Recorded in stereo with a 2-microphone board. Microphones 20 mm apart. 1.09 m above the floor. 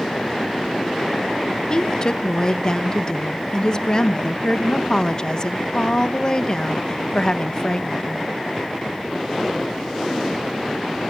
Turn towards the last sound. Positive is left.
turn(degrees=35)  # may be behind; listen again after turning